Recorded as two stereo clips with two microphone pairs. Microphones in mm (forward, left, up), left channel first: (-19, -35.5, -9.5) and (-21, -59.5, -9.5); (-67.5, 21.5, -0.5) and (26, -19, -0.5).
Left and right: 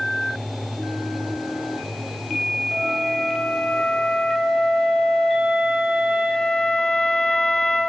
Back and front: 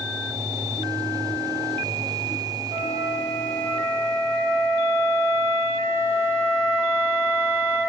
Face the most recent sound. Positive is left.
turn(degrees=140)